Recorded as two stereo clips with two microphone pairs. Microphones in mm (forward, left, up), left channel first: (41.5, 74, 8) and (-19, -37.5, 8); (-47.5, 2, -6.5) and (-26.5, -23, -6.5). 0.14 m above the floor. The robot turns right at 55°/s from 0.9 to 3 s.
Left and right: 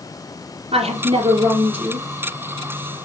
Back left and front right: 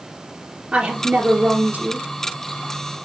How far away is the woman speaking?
About 2.5 m.